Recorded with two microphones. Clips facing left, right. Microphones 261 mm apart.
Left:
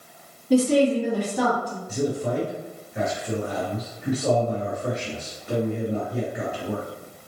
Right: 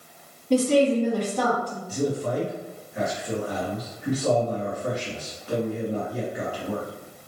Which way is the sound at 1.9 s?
25° left (ahead or behind).